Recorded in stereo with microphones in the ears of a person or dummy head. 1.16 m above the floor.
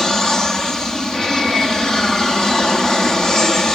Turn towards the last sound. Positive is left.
turn(degrees=0)  # may be behind; listen again after turning